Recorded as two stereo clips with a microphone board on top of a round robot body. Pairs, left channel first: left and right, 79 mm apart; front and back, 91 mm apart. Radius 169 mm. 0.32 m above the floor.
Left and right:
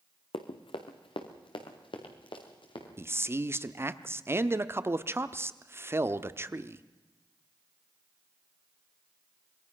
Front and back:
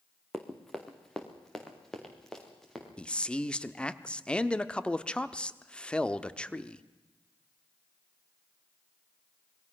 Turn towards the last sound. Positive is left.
turn(degrees=-70)